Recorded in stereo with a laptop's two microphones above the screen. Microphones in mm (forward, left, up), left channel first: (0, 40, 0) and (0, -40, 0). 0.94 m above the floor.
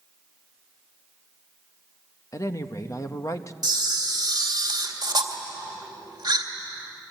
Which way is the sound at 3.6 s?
55° right (ahead or behind).